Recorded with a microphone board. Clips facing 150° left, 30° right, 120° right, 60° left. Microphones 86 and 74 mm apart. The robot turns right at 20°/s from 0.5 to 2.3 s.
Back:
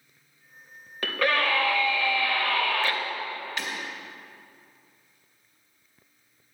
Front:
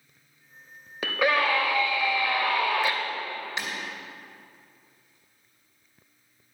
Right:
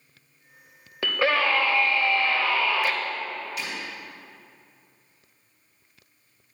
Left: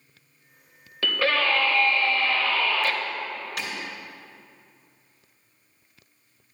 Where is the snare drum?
No snare drum in this recording.